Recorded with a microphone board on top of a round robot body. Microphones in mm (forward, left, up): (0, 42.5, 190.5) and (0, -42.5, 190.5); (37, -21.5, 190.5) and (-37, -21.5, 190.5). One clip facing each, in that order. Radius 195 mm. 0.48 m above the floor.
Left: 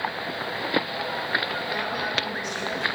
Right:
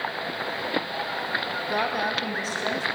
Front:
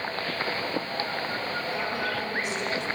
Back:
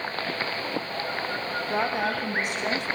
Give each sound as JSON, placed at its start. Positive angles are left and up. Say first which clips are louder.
{"t": 1.7, "sound": "a woman speaking", "louder": "right 6 dB, back 6 dB", "azimuth_deg": -135, "distance_m": 3.5}